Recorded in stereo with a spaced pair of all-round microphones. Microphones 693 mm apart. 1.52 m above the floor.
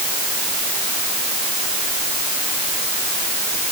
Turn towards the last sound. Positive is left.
No sound to turn to.